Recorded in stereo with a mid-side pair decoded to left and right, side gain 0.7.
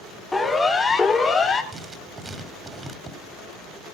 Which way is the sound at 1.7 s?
20° right.